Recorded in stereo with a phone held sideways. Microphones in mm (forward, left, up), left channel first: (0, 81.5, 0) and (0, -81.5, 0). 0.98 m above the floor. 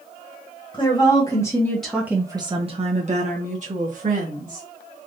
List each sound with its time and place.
0.7 s a woman speaking: 30° left (ahead or behind), 1.1 m; by 4.7 s 50° right (ahead or behind), 1.7 m